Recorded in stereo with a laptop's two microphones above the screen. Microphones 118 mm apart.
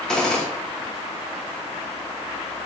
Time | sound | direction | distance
0.1 | a gunshot | 5° left (ahead or behind) | 1.3 m